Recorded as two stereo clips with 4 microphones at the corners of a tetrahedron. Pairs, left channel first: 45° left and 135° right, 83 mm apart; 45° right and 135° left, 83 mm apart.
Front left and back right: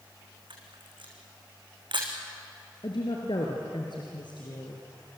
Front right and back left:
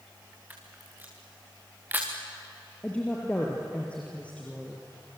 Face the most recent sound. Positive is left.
turn(degrees=30)